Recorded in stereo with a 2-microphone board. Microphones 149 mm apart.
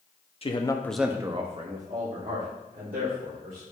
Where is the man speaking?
40° left (ahead or behind), 0.9 m; by 3.6 s 80° right, 3 m.